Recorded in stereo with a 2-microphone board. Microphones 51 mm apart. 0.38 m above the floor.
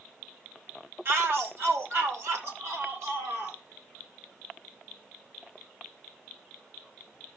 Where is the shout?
50° right (ahead or behind), 1.7 m; by 3.6 s 65° right (ahead or behind), 5 m.